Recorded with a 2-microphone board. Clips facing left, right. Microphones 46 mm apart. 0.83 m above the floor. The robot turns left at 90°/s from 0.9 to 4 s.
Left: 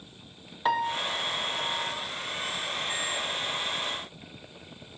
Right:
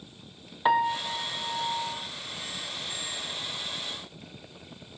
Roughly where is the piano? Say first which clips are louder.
Right 3 dB; centre.